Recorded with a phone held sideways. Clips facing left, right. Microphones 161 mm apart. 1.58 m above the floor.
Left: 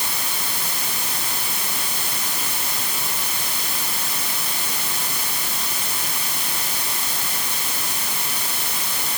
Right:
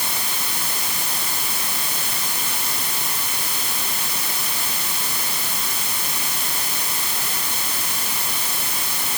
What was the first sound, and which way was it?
Only background noise.